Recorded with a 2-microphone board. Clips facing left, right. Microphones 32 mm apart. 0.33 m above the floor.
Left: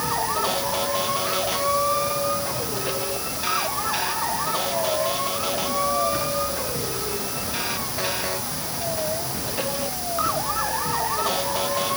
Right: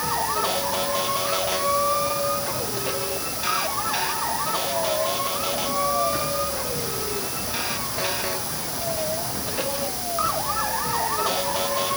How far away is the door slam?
No door slam in this recording.